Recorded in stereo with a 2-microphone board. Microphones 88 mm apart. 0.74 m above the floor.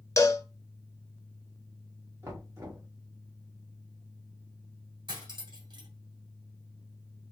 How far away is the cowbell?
About 0.7 m.